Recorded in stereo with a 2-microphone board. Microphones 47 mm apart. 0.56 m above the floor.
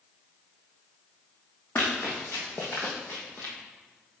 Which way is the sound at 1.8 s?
40° left (ahead or behind).